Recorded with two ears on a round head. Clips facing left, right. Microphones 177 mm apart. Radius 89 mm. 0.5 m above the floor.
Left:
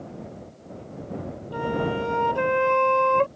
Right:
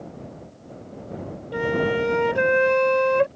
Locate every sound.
1.5 s a flute: 25° right (ahead or behind)